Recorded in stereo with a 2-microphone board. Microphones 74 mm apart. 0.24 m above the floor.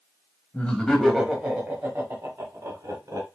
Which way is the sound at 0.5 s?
20° left (ahead or behind).